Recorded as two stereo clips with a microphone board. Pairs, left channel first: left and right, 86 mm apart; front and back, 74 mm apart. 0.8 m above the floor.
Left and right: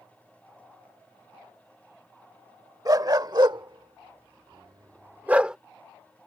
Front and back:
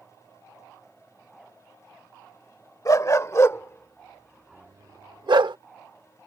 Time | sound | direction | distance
2.9 | a dog barking | 45° right | ?